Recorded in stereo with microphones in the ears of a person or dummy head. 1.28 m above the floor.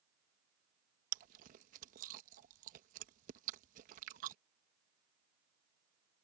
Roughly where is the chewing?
Right.